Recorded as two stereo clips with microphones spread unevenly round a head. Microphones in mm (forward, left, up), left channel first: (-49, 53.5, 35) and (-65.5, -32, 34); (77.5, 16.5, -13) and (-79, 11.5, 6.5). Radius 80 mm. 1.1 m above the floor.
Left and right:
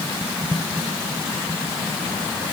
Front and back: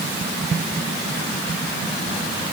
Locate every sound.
Only background noise.